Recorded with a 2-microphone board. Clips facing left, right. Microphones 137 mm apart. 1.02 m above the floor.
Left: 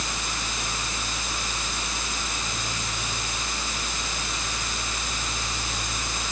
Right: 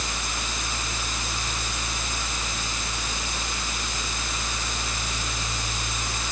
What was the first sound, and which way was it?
Only background noise.